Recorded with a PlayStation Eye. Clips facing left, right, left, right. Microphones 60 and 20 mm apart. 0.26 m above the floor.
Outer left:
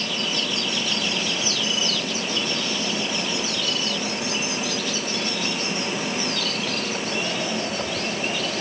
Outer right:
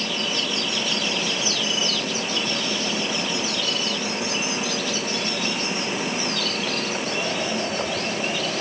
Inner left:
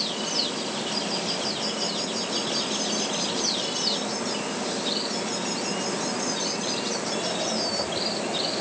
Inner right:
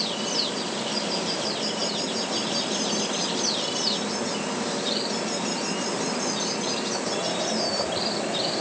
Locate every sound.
Only background noise.